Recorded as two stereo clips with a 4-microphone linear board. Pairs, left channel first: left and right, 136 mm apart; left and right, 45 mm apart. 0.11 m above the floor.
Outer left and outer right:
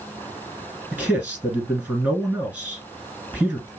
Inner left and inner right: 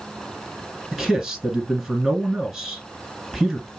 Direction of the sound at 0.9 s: 10° right (ahead or behind).